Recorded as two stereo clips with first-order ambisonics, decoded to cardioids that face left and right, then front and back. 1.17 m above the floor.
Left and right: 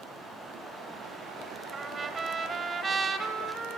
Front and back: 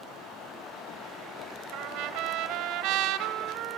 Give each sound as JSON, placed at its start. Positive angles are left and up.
{"t": 1.7, "sound": "a trumpet", "azimuth_deg": -160, "distance_m": 1.7}